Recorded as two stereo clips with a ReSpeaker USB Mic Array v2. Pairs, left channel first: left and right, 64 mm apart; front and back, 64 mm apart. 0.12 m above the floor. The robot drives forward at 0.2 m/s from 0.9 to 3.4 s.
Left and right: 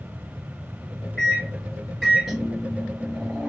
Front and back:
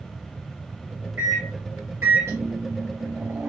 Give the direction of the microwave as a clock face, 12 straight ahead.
6 o'clock.